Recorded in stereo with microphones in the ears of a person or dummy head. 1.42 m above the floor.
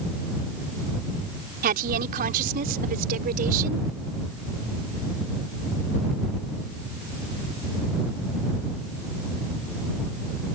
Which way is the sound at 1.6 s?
50° right (ahead or behind).